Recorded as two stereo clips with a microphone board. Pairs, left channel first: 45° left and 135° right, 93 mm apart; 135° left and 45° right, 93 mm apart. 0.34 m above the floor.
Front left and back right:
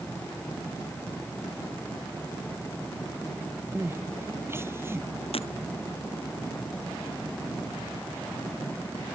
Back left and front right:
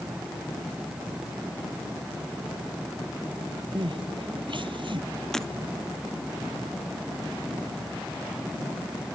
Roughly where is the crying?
Right.